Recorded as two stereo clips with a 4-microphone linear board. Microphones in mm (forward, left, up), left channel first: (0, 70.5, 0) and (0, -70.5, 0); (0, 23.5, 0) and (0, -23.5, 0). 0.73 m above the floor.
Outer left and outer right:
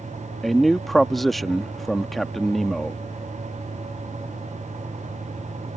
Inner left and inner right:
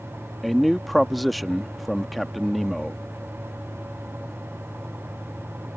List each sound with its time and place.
0.4 s a man speaking: centre (ahead or behind)